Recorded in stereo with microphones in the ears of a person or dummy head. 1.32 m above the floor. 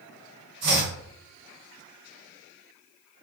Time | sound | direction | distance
0.6 | chopping | 50° right (ahead or behind) | 1.6 m